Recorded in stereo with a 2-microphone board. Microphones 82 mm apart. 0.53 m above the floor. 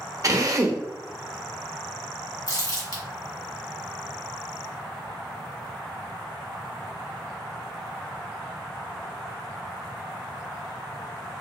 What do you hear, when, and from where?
0.2 s a drill: 45° right (ahead or behind), 0.5 m
2.5 s crumpling: 45° left (ahead or behind), 1.7 m